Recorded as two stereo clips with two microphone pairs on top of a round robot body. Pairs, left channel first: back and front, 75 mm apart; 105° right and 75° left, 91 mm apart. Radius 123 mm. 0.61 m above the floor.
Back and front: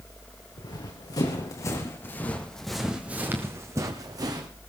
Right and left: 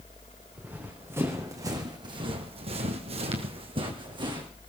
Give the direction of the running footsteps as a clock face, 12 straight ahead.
7 o'clock.